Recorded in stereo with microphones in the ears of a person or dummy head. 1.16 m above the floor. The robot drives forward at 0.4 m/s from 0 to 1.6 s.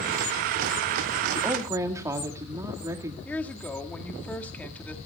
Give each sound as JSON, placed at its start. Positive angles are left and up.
{"t": 1.3, "sound": "a woman speaking", "side_deg": -20, "distance_m": 1.9}
{"t": 3.2, "sound": "a woman speaking", "side_deg": 10, "distance_m": 1.9}